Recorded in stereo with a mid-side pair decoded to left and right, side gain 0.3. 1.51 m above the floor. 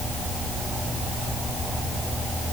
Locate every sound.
Only background noise.